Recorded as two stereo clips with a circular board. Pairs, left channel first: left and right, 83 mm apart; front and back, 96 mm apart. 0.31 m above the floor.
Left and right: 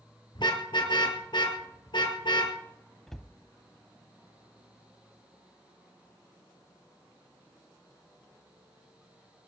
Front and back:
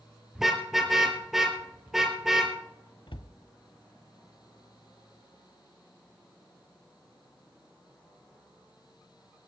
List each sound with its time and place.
0.3 s a car horn: 95° left, 3 m
3.1 s a cupboard door: 5° left, 0.7 m